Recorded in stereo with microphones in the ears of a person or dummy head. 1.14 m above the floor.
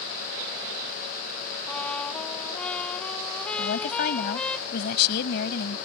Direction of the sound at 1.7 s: 10° left (ahead or behind).